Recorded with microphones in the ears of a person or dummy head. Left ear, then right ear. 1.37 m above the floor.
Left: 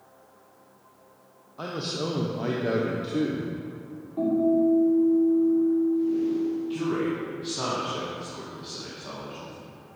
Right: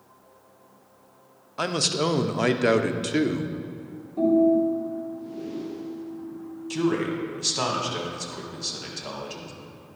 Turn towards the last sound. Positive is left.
turn(degrees=-85)